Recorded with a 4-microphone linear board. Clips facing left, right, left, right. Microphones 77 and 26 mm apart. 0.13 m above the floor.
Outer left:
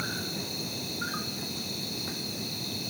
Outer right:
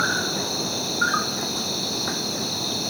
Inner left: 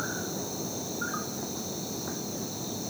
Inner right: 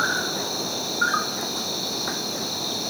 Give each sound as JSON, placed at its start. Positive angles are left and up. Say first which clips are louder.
{"t": 0.0, "sound": "an insect", "louder": "outer right 11 dB, inner right 10 dB", "side_deg": -70}